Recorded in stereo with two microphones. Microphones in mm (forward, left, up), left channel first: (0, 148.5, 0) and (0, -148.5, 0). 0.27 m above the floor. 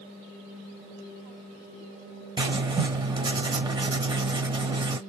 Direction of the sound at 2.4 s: 15° right (ahead or behind).